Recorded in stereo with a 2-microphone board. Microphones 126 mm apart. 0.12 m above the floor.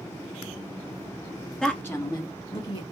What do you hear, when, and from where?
1.6 s a woman speaking: 5° left (ahead or behind), 1.3 m; by 2.8 s 55° left (ahead or behind), 1.8 m